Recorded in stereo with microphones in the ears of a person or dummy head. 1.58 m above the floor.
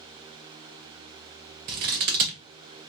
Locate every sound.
1.7 s scissors: 40° right (ahead or behind), 0.5 m